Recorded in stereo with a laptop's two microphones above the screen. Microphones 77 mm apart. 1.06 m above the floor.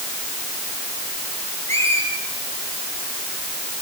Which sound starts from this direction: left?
A squeak, at 1.7 s.